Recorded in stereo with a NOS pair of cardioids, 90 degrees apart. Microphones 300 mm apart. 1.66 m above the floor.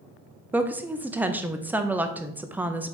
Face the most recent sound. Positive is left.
turn(degrees=-5)